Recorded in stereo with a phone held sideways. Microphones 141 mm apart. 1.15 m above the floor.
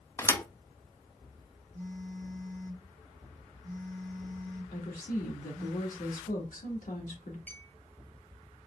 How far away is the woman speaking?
About 1.7 m.